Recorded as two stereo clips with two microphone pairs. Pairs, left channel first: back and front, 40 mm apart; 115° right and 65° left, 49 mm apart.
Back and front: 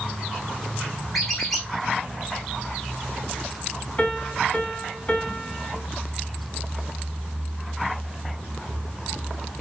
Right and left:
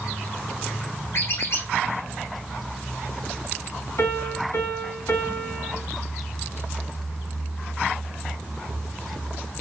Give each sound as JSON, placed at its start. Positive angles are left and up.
{"t": 1.1, "sound": "a squeak", "azimuth_deg": -95, "distance_m": 3.0}
{"t": 4.0, "sound": "a piano", "azimuth_deg": -120, "distance_m": 2.5}